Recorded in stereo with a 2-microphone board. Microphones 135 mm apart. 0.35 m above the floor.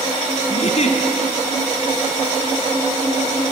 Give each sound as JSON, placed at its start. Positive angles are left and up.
{"t": 0.5, "sound": "a giggle", "side_deg": 55, "distance_m": 2.0}